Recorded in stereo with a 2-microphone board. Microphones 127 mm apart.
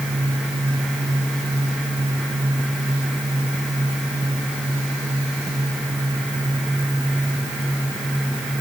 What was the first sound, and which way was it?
Only background noise.